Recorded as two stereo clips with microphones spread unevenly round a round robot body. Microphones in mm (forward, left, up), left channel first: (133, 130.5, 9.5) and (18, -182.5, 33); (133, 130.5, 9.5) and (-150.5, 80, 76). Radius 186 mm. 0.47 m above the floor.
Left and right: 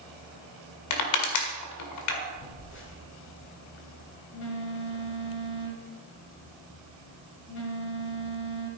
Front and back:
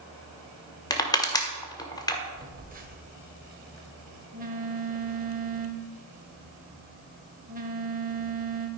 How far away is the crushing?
About 1.8 m.